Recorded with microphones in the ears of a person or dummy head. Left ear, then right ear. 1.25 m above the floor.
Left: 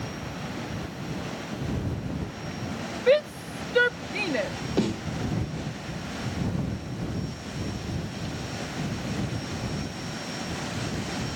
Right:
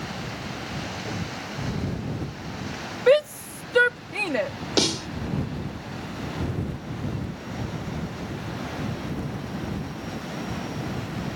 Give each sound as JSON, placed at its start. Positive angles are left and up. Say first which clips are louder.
{"t": 3.1, "sound": "a shout", "louder": "right 3 dB", "side_deg": -40}
{"t": 4.8, "sound": "a snare drum", "louder": "right 6 dB", "side_deg": -65}